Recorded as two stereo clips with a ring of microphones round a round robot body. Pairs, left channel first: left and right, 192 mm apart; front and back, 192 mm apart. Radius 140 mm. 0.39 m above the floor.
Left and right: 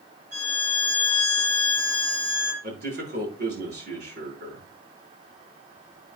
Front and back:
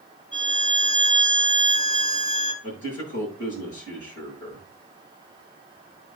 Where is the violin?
65° right, 6 m.